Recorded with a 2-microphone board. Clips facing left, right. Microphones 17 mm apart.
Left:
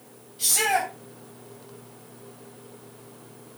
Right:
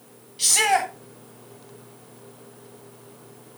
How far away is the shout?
About 3 m.